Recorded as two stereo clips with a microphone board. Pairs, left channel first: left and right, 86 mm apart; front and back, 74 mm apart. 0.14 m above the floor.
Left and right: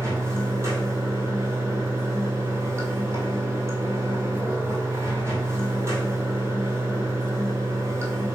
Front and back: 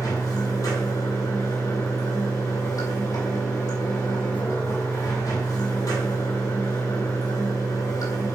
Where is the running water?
35° right, 1.8 m.